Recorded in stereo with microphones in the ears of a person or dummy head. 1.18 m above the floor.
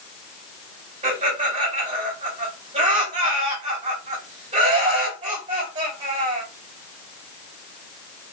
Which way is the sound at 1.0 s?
30° right (ahead or behind).